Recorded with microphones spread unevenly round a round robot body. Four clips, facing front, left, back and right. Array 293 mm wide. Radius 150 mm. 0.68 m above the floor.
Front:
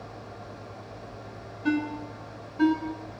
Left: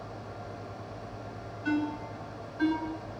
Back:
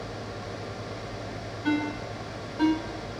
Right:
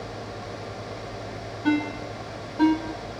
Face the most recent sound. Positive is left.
turn(degrees=-85)